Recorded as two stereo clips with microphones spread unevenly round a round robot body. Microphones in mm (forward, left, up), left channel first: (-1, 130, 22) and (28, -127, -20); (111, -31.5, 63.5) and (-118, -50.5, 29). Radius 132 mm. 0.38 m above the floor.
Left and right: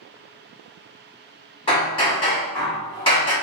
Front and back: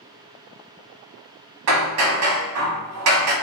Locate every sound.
1.7 s hammering: 170° left, 0.9 m